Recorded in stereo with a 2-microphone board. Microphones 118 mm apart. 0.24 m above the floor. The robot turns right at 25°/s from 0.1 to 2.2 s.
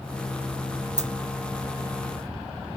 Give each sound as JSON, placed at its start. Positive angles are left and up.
{"t": 1.0, "sound": "a dropped coin", "side_deg": -80, "distance_m": 0.5}